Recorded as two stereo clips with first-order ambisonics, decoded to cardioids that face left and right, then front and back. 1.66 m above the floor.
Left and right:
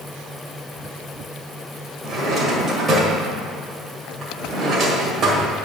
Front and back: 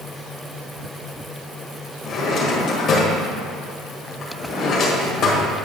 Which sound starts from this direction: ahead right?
A drawer, at 2.0 s.